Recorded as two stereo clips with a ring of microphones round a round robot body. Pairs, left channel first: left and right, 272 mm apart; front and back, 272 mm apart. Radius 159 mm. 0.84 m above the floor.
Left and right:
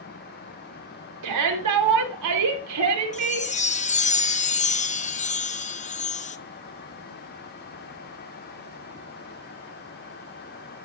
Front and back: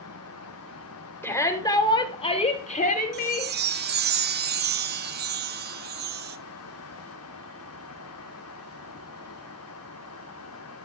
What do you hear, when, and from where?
1.2 s a shout: 80° right, 3 m; by 3.5 s 55° right, 3 m
3.1 s a chime: 145° left, 0.9 m